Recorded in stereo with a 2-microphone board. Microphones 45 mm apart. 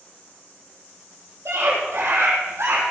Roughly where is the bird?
I don't hear a bird.